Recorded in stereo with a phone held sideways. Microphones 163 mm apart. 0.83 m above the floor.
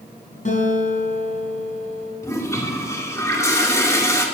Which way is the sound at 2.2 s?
20° left (ahead or behind).